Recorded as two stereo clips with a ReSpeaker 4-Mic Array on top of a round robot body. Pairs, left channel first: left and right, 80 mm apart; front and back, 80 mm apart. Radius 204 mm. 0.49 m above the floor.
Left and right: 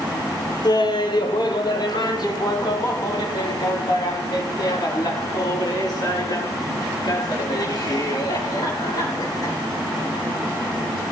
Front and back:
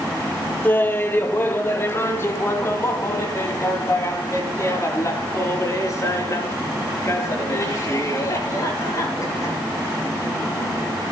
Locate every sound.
0.6 s laughter: 65° left, 1.8 m; by 9.6 s 50° left, 10 m